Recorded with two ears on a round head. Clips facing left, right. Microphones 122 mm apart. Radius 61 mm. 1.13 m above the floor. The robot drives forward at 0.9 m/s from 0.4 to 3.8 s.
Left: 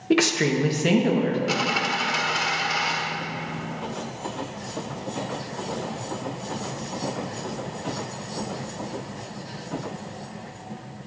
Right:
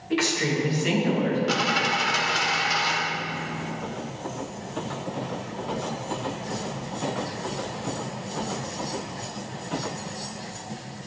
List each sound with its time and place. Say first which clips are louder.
0.1 s a woman speaking: left 4 dB; 65° left (ahead or behind), 1.0 m; by 1.4 s 40° left (ahead or behind), 1.4 m
1.5 s a dropped coin: right 1 dB; 5° left (ahead or behind), 0.5 m; by 2.9 s centre (ahead or behind), 1.6 m